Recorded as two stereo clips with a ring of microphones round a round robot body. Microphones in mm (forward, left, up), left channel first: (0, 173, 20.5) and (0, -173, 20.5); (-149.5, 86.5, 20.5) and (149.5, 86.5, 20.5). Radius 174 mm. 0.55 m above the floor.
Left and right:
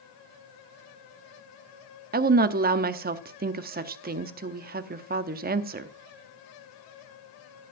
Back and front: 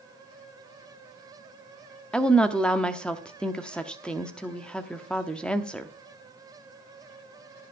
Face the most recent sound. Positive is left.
turn(degrees=-95)